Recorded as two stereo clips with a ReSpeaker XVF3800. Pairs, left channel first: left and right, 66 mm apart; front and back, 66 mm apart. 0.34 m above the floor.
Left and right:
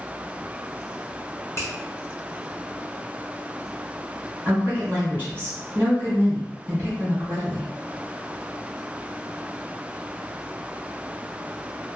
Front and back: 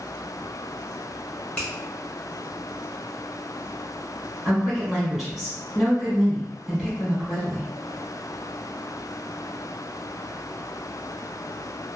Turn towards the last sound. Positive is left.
turn(degrees=-100)